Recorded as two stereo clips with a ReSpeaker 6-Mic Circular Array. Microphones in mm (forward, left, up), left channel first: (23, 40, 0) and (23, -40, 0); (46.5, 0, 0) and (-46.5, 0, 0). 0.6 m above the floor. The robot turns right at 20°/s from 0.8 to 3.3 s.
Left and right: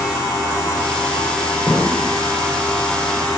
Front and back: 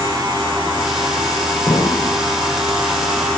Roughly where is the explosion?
Ahead.